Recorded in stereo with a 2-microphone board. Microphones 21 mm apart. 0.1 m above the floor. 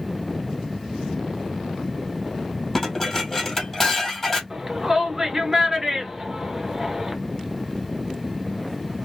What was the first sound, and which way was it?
Dishes clattering, 15° left (ahead or behind).